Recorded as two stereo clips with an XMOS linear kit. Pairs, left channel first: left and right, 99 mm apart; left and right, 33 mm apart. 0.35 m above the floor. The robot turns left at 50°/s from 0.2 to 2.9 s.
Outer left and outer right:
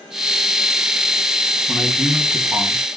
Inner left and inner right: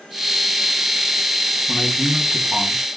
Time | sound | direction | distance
1.7 | a man speaking | 20° left | 2.5 m